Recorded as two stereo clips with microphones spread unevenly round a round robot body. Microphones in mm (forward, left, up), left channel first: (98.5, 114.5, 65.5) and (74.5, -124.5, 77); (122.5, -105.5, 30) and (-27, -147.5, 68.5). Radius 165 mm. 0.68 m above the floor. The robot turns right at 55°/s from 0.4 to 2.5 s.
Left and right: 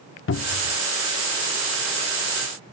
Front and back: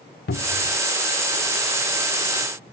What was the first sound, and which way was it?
A cupboard door, 45° left.